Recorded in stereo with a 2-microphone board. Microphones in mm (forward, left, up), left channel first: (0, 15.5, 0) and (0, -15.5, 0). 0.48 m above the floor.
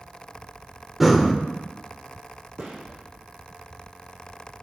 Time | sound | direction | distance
1.0 | breathing | 5° right (ahead or behind) | 0.8 m
2.6 | a gunshot | 80° right | 5 m